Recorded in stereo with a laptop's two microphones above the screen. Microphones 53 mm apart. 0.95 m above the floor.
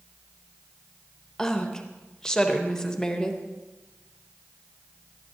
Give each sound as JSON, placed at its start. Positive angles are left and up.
{"t": 1.4, "sound": "a woman speaking", "side_deg": 10, "distance_m": 0.7}